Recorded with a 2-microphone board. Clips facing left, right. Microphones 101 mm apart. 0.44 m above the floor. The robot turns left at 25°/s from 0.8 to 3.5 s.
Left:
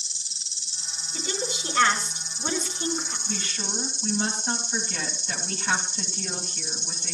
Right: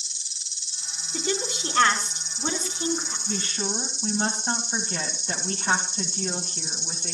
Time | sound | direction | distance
0.0 | an insect | 145° left | 0.7 m
1.1 | a woman speaking | 115° right | 4 m
3.3 | a woman speaking | 40° right (ahead or behind) | 2.5 m